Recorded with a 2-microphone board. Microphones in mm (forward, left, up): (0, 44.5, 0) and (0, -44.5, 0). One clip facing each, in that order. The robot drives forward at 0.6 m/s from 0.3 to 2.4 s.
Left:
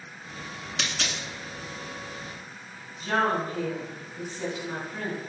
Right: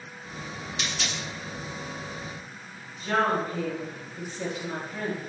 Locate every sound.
0.8 s a dropped coin: 70° left (ahead or behind), 0.6 m; by 1.2 s 55° left (ahead or behind), 0.6 m
3.0 s a woman speaking: 20° left (ahead or behind), 1.9 m